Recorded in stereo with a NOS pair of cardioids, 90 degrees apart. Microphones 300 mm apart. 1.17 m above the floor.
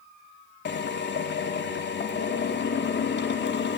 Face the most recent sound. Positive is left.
turn(degrees=40)